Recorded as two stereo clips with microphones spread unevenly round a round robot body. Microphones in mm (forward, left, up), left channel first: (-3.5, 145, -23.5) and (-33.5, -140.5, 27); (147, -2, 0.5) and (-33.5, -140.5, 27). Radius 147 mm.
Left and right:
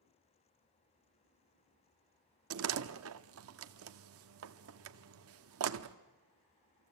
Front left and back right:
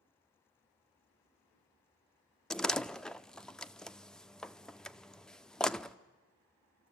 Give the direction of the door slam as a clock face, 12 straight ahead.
2 o'clock.